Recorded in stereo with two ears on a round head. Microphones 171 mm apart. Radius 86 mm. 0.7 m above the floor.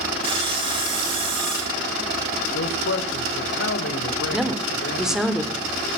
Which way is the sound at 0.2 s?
30° right (ahead or behind).